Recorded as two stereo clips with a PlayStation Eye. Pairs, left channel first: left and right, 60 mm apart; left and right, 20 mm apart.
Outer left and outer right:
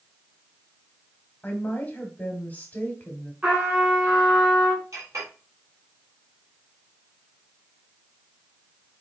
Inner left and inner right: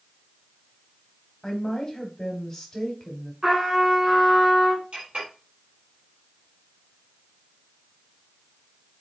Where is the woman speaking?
30° left (ahead or behind), 1.1 m.